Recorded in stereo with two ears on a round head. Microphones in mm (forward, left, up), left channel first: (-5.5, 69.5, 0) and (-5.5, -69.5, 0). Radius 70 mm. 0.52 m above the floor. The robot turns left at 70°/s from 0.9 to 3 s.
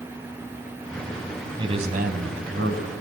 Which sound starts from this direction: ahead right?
A man speaking, at 1.6 s.